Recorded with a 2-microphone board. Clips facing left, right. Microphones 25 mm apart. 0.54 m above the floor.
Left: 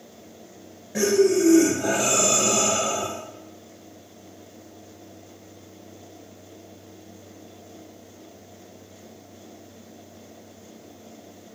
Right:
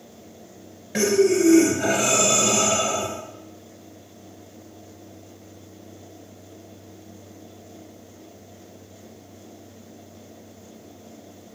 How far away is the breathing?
About 3 m.